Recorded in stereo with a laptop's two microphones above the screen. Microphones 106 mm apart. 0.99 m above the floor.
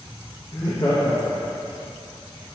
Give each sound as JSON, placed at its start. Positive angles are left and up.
{"t": 0.5, "sound": "laughter", "side_deg": 30, "distance_m": 0.6}